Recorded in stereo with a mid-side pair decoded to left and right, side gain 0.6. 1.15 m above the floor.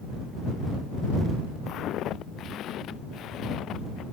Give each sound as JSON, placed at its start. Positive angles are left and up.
{"t": 1.7, "sound": "footsteps", "azimuth_deg": 55}